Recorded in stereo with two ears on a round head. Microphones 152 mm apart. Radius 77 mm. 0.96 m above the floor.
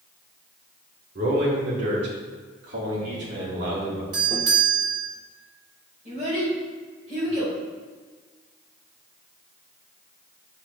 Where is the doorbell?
25° right (ahead or behind), 1.2 m.